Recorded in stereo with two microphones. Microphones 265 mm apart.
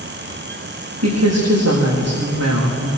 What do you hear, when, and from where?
1.0 s a woman speaking: 70° right (ahead or behind), 7.5 m